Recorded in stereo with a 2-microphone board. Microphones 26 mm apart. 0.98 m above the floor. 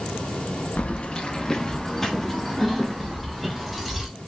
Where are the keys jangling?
60° left (ahead or behind), 0.7 m; by 4.1 s 5° right (ahead or behind), 2.5 m.